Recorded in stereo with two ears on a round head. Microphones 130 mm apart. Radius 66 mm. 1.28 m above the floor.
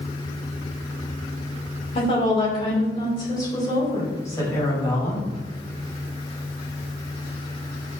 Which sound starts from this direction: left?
A woman speaking, at 1.9 s.